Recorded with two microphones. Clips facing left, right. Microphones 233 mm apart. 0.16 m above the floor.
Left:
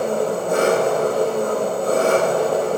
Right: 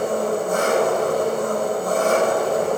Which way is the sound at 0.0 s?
80° left.